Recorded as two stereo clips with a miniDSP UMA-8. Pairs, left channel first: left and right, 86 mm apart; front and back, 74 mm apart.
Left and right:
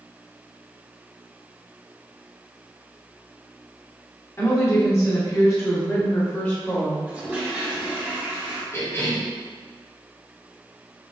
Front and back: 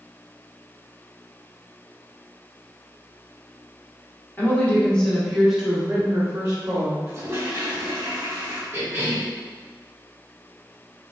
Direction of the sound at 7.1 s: 150° right.